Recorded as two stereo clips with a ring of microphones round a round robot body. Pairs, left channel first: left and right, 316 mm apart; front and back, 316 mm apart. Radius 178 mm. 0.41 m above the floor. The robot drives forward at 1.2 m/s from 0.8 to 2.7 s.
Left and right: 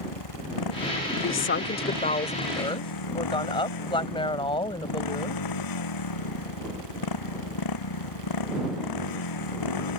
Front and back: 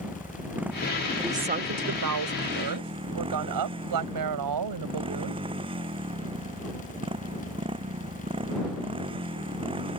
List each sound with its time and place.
0.0 s a motorcycle: 95° left; by 10.0 s 105° left
1.2 s a woman speaking: 85° left; by 5.4 s 165° left